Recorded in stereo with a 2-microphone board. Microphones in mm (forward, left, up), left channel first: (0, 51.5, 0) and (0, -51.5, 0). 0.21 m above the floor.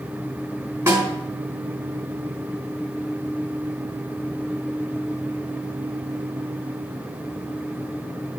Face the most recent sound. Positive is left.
turn(degrees=-30)  # may be behind; listen again after turning